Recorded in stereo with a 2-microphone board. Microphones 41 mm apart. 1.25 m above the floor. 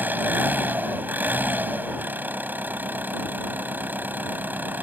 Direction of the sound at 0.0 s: 50° right (ahead or behind).